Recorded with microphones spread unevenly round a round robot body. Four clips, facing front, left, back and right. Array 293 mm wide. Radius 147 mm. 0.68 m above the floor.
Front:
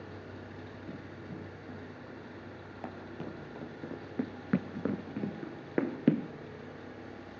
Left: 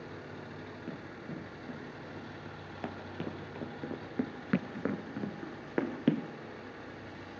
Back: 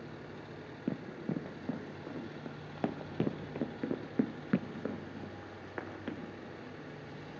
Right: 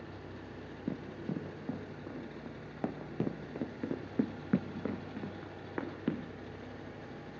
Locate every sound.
0.9 s running footsteps: 155° right, 2.5 m; by 6.3 s 25° left, 1.3 m